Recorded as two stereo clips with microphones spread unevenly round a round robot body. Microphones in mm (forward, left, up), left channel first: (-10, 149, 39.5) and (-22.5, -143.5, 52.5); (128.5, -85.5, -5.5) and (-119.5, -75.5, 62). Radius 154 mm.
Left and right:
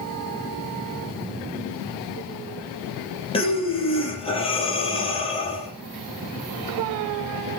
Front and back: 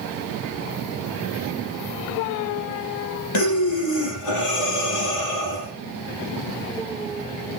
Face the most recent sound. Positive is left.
turn(degrees=15)